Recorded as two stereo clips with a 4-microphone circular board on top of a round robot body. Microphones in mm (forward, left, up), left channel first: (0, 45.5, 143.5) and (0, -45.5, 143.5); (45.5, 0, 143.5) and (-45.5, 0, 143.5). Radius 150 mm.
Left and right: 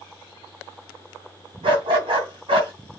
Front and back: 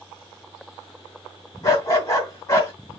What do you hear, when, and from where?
1.6 s a dog barking: 55° right, 2.5 m